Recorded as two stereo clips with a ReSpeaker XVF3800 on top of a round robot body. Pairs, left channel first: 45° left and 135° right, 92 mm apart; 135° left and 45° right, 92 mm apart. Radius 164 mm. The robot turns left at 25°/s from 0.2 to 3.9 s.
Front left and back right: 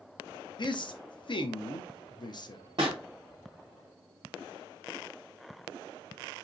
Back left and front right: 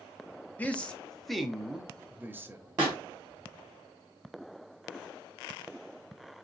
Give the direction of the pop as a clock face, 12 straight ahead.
3 o'clock.